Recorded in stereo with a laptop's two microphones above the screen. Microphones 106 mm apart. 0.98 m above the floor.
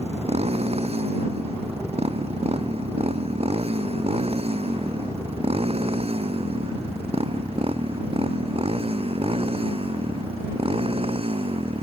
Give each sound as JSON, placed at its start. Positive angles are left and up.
{"t": 0.0, "sound": "a motorcycle", "side_deg": -75}